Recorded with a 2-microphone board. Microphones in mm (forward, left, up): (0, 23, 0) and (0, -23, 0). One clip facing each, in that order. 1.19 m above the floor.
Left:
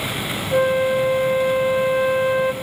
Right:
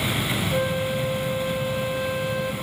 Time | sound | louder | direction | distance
0.5 | a flute | left 11 dB | 30° left (ahead or behind) | 0.8 m